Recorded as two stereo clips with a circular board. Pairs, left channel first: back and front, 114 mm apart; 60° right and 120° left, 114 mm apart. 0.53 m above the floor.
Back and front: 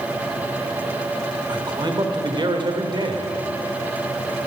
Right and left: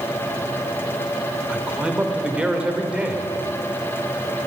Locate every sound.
1.5 s a man speaking: 40° left, 1.5 m